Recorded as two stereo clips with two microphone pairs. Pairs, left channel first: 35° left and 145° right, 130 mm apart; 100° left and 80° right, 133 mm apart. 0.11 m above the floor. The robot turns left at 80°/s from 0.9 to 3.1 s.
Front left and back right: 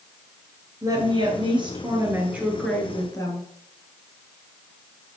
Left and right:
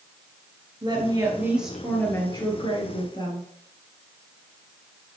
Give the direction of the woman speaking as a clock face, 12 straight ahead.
4 o'clock.